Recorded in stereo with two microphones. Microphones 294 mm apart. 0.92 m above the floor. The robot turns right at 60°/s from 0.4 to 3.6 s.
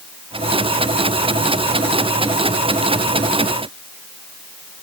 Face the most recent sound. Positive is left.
No sound to turn to.